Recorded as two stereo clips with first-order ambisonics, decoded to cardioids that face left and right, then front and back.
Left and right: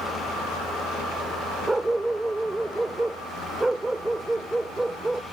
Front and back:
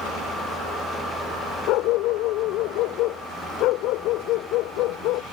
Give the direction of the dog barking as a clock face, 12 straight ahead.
12 o'clock.